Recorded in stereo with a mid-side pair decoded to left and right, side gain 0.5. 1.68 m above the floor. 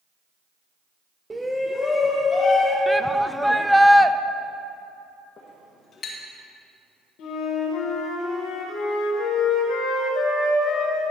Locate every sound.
1.3 s a shout: 20° right, 0.7 m; by 2.8 s 55° left, 1.8 m
2.9 s a shout: straight ahead, 0.5 m
5.4 s a clink: 55° left, 1.9 m
7.2 s a flute: 70° left, 1.9 m